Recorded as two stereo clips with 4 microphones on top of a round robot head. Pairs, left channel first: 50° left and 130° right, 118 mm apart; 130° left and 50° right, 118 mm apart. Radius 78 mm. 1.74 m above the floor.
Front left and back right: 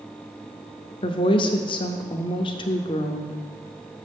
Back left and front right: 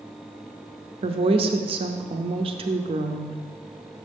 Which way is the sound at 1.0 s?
5° right.